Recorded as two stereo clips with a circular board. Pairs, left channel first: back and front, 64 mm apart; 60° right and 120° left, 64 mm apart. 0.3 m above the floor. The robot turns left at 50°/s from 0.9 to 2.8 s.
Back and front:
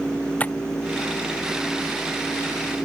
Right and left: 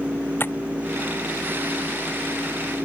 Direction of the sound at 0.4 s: 115° right.